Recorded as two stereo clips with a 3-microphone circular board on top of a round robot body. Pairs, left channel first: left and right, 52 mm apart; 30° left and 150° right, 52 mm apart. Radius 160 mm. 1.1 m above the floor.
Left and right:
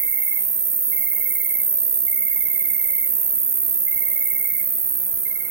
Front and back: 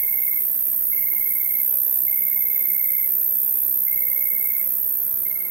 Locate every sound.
0.0 s an insect: 135° right, 0.7 m